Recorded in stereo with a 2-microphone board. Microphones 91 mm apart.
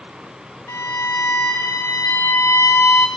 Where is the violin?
30° left (ahead or behind), 2.5 m.